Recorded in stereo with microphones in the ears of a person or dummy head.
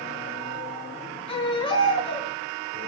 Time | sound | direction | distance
1.3 | a baby crying | 25° left (ahead or behind) | 4.5 m